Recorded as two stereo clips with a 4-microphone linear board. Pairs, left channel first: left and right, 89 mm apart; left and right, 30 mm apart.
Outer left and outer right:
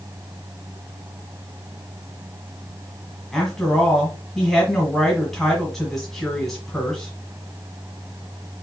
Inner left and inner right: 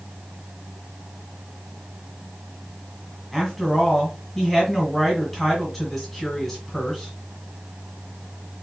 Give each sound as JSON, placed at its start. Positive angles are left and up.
{"t": 3.3, "sound": "a woman speaking", "side_deg": 5, "distance_m": 1.6}